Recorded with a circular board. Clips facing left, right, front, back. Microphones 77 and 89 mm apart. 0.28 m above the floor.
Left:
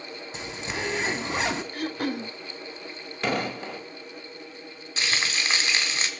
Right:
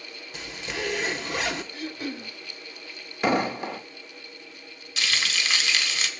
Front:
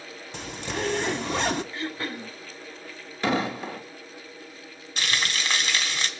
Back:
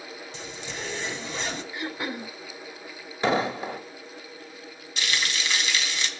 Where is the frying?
40° left, 2 m.